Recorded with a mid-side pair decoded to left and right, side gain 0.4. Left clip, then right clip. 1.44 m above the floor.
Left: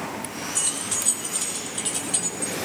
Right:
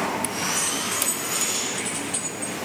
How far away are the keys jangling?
About 2 m.